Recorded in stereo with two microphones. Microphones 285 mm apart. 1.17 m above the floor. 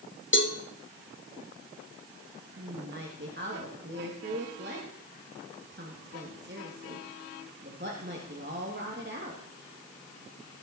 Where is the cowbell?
45° left (ahead or behind), 1.3 m.